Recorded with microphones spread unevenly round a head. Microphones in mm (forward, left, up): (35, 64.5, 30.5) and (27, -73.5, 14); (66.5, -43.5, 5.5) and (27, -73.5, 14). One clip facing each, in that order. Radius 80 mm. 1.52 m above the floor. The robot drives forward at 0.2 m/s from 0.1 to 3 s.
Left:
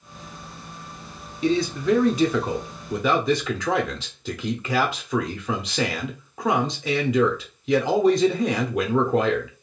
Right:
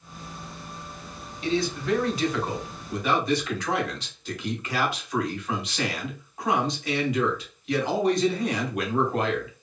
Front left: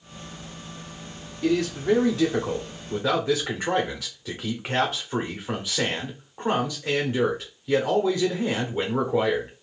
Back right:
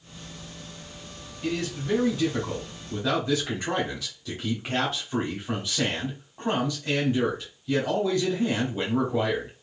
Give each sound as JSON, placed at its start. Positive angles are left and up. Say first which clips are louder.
{"t": 1.4, "sound": "a man speaking", "louder": "left 5 dB, front left 6 dB", "azimuth_deg": 95, "distance_m": 0.7}